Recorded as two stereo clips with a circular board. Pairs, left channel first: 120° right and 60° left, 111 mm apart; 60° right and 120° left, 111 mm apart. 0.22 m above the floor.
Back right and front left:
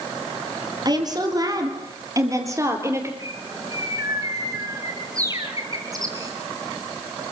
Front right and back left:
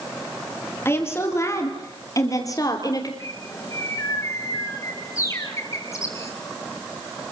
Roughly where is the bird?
Ahead.